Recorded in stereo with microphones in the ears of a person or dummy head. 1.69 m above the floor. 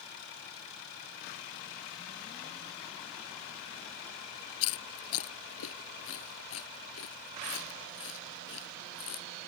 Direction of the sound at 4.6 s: 75° left (ahead or behind).